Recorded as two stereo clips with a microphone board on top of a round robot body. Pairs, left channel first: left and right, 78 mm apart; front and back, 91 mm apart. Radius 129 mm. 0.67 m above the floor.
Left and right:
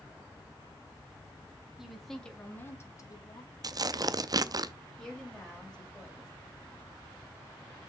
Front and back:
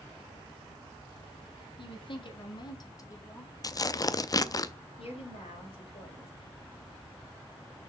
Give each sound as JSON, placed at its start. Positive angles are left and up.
{"t": 1.8, "sound": "a woman speaking", "azimuth_deg": -5, "distance_m": 2.0}
{"t": 3.6, "sound": "tearing paper", "azimuth_deg": -50, "distance_m": 0.6}
{"t": 5.0, "sound": "a woman speaking", "azimuth_deg": 5, "distance_m": 4.0}